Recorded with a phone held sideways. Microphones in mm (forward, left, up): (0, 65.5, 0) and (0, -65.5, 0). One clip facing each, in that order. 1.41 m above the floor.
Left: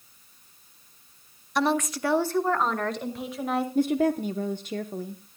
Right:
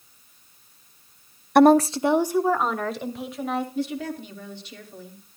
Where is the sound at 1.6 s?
60° right (ahead or behind), 0.5 m; by 3.6 s centre (ahead or behind), 2.5 m.